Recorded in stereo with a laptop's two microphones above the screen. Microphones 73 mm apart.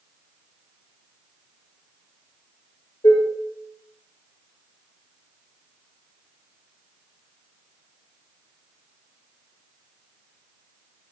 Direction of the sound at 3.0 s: 65° left (ahead or behind).